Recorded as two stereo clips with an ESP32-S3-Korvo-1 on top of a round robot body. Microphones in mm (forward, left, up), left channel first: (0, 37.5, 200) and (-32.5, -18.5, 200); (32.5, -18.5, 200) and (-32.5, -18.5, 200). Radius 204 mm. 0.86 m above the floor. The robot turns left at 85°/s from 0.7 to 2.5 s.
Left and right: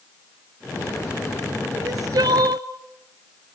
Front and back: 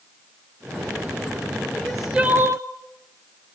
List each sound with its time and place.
1.7 s crying: 70° right, 1.4 m; by 2.7 s 135° right, 1.4 m